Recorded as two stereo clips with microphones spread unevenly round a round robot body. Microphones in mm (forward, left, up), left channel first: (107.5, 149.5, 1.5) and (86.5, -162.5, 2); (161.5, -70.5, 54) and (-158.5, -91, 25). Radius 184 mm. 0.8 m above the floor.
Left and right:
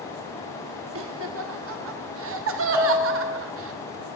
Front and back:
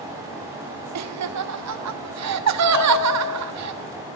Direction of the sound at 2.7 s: 15° right.